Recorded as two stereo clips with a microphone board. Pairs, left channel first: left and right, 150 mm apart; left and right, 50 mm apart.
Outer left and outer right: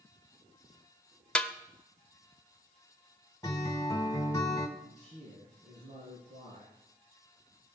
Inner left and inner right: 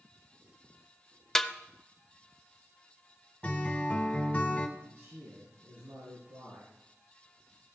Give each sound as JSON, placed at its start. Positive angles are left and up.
{"t": 1.4, "sound": "a snare drum", "side_deg": 5, "distance_m": 0.6}
{"t": 3.4, "sound": "a guitar", "side_deg": 25, "distance_m": 1.6}
{"t": 4.8, "sound": "a man speaking", "side_deg": -55, "distance_m": 6.0}